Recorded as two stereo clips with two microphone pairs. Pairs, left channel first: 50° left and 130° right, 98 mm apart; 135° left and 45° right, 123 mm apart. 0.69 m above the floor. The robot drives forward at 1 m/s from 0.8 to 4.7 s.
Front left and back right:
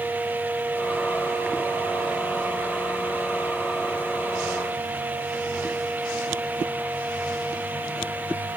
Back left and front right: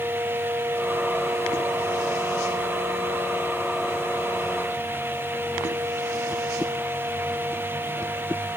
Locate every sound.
Only background noise.